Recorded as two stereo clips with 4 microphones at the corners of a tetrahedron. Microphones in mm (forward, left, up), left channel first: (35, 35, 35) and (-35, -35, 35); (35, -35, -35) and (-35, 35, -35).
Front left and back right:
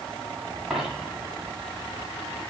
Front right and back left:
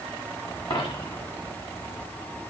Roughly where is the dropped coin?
Ahead right.